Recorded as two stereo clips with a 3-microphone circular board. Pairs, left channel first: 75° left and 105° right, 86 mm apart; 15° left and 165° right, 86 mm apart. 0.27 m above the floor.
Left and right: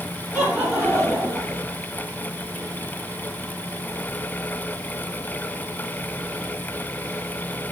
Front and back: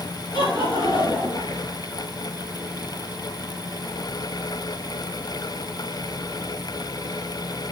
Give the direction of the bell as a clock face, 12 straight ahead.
I don't hear a bell.